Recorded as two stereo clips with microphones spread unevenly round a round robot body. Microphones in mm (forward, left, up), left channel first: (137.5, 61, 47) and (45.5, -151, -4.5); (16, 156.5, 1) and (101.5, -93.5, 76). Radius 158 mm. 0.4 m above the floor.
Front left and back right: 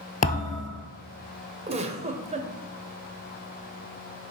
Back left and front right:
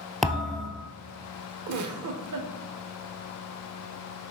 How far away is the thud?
About 1.1 m.